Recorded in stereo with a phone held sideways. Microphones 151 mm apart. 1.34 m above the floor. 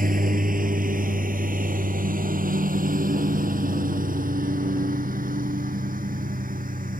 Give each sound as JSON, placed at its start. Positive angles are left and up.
{"t": 0.0, "sound": "a lawn mower", "side_deg": -65}